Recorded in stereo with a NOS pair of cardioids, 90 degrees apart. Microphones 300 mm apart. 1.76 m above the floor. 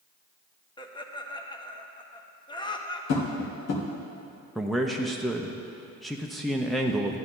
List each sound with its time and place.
0.8 s laughter: 15° left, 1.2 m
3.1 s tapping: 60° left, 1.8 m
4.5 s a man speaking: straight ahead, 0.7 m